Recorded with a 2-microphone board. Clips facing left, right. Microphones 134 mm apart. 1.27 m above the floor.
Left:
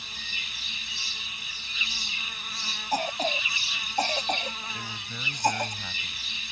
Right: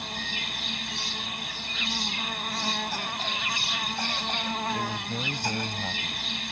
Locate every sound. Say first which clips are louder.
0.0 s an insect: right 9 dB; 60° right (ahead or behind)
2.9 s a cough: left 6 dB; 40° left (ahead or behind)
4.7 s a man speaking: right 9 dB; 35° right (ahead or behind)